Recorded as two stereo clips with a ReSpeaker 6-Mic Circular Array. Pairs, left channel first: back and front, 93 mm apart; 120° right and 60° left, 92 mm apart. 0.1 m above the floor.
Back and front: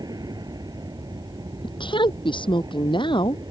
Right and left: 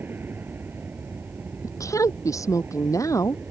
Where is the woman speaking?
170° right.